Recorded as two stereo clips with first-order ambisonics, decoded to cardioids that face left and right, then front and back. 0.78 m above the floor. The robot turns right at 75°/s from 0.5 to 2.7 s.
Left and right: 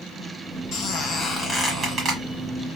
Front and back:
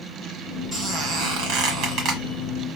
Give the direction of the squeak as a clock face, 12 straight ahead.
8 o'clock.